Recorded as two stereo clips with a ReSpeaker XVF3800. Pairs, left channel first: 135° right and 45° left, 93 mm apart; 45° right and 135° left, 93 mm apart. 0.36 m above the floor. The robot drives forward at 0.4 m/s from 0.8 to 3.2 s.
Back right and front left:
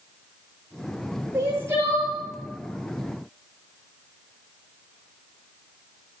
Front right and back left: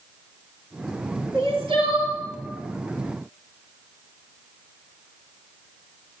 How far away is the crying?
About 7 m.